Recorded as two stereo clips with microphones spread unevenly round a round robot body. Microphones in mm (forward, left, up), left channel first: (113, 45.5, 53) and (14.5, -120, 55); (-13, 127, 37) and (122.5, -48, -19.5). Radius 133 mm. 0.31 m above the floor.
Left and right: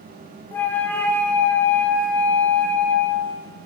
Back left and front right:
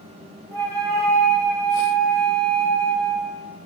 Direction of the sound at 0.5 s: 10° right.